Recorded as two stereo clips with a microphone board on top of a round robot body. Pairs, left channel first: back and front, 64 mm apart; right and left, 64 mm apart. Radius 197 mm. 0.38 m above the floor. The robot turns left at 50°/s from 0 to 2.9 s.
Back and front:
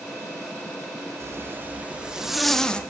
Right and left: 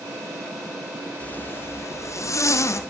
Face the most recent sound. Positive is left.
turn(degrees=-115)